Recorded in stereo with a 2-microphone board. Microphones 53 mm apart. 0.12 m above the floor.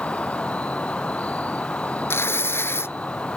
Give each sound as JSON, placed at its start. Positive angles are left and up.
{"t": 0.0, "sound": "an insect", "side_deg": 25}
{"t": 2.1, "sound": "tearing paper", "side_deg": 50}